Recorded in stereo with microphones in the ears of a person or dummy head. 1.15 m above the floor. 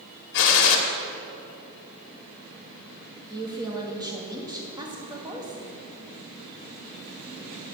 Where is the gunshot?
75° left (ahead or behind), 1.5 m.